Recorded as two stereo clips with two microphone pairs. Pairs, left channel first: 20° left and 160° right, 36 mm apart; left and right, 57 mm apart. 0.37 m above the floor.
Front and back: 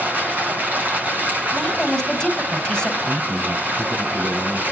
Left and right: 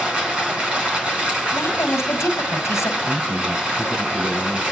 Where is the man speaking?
165° right, 2.5 m.